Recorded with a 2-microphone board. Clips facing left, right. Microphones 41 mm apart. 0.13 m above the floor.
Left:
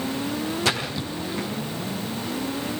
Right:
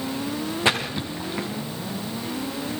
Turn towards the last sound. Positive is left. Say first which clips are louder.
# right 2 dB
turn(degrees=-25)  # may be behind; listen again after turning